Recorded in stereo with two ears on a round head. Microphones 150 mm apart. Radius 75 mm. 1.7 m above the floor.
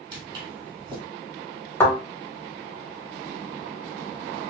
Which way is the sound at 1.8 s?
15° left (ahead or behind).